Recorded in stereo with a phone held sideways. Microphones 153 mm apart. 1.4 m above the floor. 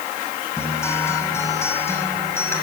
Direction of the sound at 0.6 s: 15° left (ahead or behind).